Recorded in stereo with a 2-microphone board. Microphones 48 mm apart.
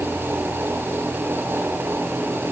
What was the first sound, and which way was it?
Only background noise.